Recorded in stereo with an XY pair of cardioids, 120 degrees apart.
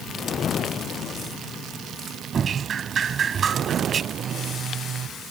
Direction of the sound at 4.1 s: 50° right.